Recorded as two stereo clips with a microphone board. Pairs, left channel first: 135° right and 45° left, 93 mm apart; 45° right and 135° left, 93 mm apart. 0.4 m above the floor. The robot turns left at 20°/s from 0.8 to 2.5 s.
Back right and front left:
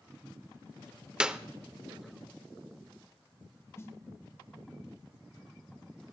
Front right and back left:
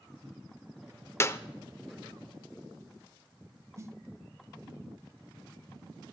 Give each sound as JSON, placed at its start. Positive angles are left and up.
{"t": 1.2, "sound": "a clap", "azimuth_deg": -25, "distance_m": 0.6}
{"t": 3.8, "sound": "a snare drum", "azimuth_deg": 175, "distance_m": 0.9}